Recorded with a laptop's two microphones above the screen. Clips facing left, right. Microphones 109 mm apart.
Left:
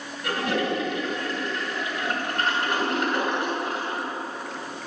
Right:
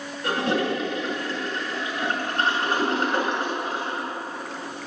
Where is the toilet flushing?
25° right (ahead or behind), 5.5 m.